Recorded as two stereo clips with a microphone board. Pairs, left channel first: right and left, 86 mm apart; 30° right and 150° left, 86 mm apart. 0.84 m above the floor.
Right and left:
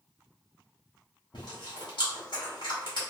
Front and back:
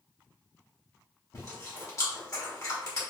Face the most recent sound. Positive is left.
turn(degrees=-80)